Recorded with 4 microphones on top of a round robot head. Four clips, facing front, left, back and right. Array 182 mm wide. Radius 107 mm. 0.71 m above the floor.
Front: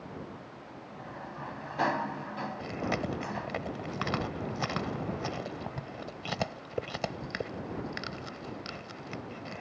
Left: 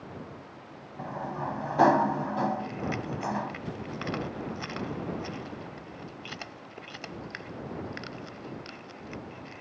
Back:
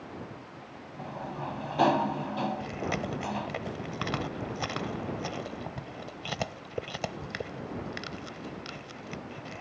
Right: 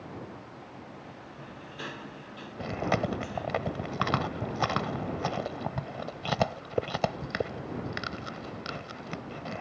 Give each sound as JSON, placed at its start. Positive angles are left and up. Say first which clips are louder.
{"t": 1.0, "sound": "a sliding door", "louder": "left 11 dB, back 6 dB", "azimuth_deg": 110}
{"t": 2.6, "sound": "chewing", "louder": "right 4 dB, even", "azimuth_deg": -85}